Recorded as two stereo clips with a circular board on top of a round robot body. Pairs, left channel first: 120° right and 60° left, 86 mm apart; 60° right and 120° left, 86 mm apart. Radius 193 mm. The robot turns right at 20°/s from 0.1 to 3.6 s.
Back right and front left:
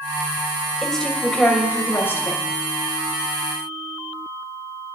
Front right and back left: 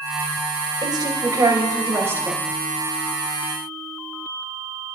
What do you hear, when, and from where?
0.8 s a woman speaking: 155° left, 3 m; by 2.4 s 175° right, 3 m